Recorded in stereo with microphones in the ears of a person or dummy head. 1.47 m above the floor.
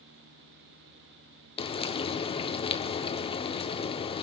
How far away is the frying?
About 0.7 m.